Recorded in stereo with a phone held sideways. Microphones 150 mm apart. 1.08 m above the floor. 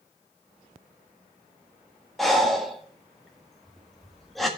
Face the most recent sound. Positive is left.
turn(degrees=0)  # may be behind; listen again after turning